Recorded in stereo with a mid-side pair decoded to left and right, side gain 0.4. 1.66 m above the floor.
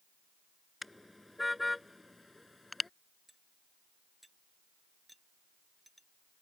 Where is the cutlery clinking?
5° right.